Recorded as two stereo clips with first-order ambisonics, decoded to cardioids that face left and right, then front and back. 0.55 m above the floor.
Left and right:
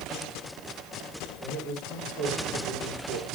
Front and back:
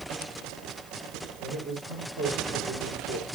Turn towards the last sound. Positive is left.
turn(degrees=-160)